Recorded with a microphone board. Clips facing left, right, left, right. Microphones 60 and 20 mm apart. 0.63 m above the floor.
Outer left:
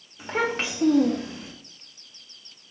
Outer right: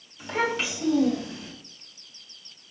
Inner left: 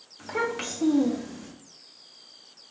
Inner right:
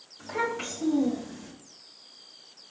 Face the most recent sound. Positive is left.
turn(degrees=25)  # may be behind; listen again after turning